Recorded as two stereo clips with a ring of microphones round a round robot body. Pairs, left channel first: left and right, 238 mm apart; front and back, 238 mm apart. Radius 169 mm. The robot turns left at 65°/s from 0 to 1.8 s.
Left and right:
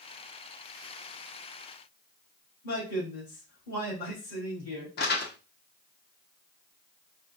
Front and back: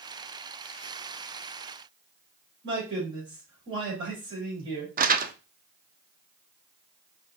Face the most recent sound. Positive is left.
turn(degrees=135)